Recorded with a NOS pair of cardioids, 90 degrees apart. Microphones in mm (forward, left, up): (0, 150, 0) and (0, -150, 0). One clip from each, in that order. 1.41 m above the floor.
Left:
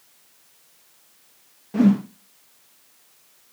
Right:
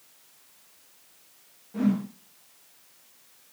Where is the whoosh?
60° left, 0.5 m.